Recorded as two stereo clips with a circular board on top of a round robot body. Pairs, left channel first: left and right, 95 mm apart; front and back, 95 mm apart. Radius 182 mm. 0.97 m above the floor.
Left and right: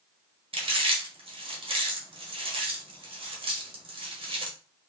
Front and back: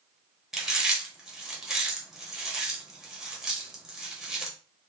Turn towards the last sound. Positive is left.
turn(degrees=-95)